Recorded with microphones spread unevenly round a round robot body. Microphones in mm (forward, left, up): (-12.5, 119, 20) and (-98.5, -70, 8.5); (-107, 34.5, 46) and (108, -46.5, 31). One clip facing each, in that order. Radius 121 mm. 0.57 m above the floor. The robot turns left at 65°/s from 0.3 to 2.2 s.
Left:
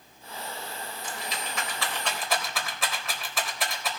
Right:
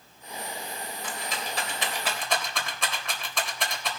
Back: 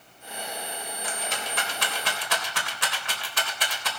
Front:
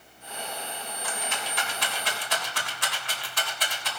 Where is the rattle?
130° right, 3.5 m; by 3.9 s 155° left, 3.5 m.